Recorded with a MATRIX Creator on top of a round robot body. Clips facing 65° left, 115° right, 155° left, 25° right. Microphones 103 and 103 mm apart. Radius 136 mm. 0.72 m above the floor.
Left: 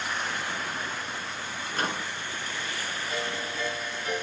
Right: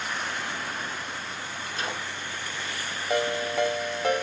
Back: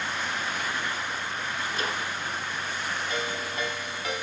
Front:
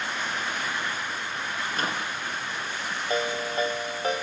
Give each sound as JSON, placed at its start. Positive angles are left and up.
{"t": 1.7, "sound": "a microwave", "azimuth_deg": 20, "distance_m": 7.0}
{"t": 3.1, "sound": "a ringtone", "azimuth_deg": -80, "distance_m": 3.0}